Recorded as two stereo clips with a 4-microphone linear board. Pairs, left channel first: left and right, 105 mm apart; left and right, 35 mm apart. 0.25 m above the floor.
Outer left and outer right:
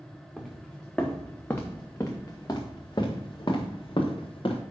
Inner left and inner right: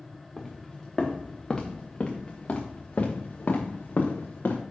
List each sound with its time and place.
0.4 s footsteps: centre (ahead or behind), 1.8 m; by 4.6 s 60° left (ahead or behind), 2.5 m